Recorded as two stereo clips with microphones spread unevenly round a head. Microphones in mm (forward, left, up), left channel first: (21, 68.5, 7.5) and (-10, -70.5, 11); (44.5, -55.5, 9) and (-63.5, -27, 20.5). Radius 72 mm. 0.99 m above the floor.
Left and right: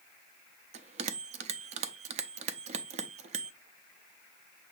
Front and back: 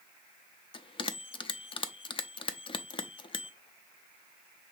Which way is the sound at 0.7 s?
60° right.